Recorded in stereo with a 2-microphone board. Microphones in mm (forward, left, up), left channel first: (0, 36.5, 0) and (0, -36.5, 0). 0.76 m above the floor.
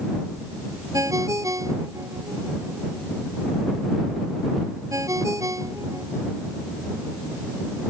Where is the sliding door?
No sliding door in this recording.